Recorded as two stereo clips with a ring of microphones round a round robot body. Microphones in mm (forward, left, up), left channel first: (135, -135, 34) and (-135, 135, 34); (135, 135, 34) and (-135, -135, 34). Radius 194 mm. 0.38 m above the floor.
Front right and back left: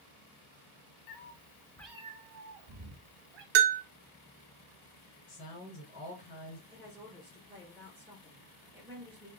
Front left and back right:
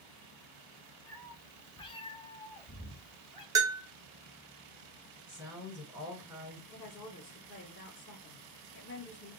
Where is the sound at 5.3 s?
55° right, 2.5 m.